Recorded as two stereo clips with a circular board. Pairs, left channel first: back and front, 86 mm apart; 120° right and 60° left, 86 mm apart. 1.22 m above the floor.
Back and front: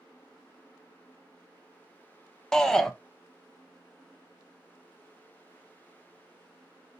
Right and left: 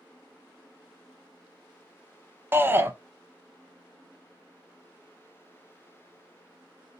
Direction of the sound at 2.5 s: 100° left.